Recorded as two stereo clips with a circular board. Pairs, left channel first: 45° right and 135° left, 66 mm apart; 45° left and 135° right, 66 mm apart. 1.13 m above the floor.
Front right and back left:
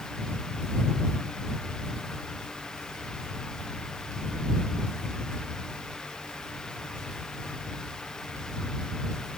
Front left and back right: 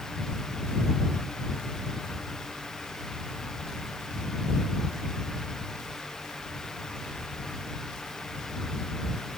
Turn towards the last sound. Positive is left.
No sound to turn to.